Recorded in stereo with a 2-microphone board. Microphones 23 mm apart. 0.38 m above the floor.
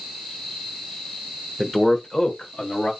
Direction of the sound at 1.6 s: 15° right (ahead or behind).